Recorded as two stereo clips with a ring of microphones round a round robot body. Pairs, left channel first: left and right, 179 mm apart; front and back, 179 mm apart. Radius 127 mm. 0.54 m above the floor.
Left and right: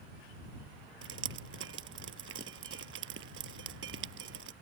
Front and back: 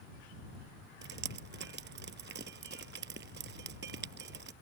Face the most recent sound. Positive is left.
turn(degrees=-130)